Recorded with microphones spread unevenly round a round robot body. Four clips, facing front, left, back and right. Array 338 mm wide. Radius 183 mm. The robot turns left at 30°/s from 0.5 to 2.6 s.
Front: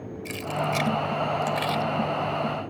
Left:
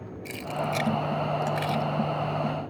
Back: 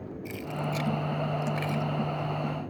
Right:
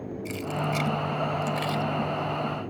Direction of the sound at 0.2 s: 30° left.